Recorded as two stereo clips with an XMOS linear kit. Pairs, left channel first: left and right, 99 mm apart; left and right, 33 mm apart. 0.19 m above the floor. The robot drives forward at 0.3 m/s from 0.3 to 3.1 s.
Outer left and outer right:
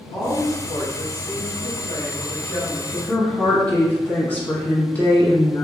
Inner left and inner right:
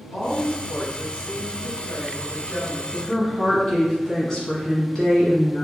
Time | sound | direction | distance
0.1 | a woman speaking | 50° left (ahead or behind) | 1.7 m
2.9 | a woman speaking | 20° left (ahead or behind) | 1.5 m